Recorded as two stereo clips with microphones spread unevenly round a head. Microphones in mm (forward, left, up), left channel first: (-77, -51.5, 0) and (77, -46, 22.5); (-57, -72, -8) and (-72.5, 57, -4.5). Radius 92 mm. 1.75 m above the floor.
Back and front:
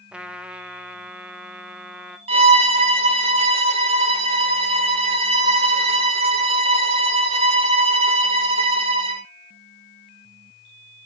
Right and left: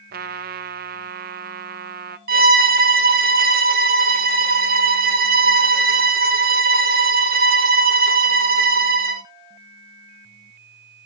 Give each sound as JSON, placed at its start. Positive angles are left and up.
{"t": 0.1, "sound": "a trumpet", "azimuth_deg": 85, "distance_m": 0.6}
{"t": 2.3, "sound": "a violin", "azimuth_deg": 65, "distance_m": 1.0}